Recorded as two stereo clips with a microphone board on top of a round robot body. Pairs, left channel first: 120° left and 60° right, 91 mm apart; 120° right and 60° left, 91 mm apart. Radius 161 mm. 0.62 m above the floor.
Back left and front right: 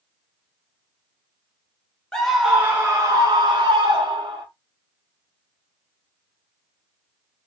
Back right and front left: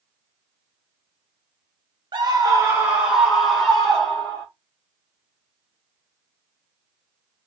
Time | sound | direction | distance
2.1 | a scream | 40° left | 1.0 m